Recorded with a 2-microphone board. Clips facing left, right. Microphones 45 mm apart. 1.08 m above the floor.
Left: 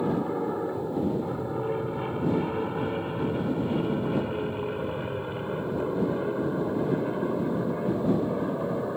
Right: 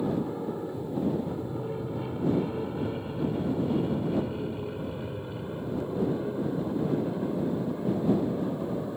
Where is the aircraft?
35° left (ahead or behind).